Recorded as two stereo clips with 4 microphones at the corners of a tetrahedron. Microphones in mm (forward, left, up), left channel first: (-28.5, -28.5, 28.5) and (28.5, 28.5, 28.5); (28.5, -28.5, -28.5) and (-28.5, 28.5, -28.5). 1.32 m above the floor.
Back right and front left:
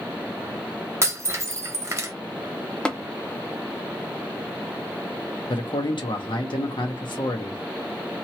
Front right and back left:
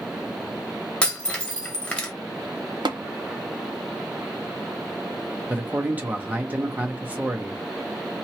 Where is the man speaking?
155° right, 1.1 m.